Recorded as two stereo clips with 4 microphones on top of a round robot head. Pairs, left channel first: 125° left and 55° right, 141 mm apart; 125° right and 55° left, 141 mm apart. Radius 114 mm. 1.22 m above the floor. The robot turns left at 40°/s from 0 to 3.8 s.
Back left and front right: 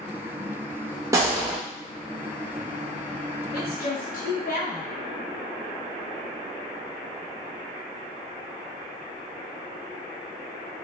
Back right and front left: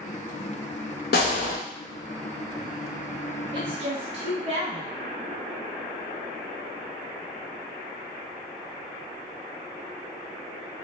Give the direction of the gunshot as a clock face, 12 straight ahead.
4 o'clock.